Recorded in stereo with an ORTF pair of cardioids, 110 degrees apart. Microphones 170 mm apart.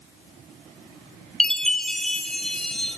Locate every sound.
1.4 s a chime: 5° left, 0.8 m